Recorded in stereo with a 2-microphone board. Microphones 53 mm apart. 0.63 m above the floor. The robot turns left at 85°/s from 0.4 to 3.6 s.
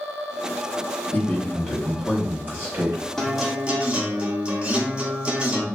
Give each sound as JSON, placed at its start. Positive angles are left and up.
{"t": 1.1, "sound": "a man speaking", "azimuth_deg": 65, "distance_m": 0.8}
{"t": 3.2, "sound": "a guitar", "azimuth_deg": 15, "distance_m": 0.7}